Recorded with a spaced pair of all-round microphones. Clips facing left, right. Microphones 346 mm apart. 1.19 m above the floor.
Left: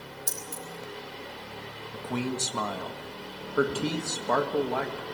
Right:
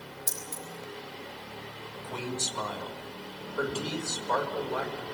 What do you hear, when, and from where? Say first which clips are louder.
0.3 s keys jangling: left 2 dB; 20° left (ahead or behind), 4.5 m
1.9 s a man speaking: left 6 dB; 70° left (ahead or behind), 1.9 m